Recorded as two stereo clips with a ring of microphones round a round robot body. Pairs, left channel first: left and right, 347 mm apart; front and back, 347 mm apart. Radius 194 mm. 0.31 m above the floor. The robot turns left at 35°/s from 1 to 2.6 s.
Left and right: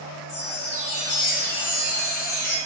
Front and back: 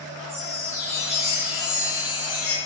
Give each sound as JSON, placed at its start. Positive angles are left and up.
{"t": 0.3, "sound": "a chime", "azimuth_deg": 110, "distance_m": 1.9}